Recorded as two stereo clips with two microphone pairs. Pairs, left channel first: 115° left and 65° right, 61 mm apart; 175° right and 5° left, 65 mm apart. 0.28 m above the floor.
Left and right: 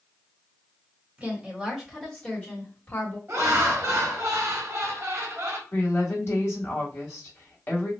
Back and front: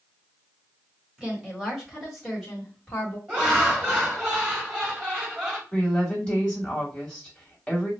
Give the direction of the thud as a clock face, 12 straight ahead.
No thud in this recording.